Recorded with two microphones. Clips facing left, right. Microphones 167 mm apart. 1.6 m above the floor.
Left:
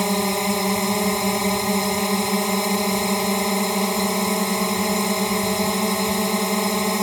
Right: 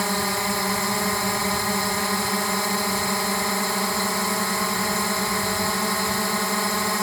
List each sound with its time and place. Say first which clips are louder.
0.0 s a drone: left 4 dB; 20° left (ahead or behind)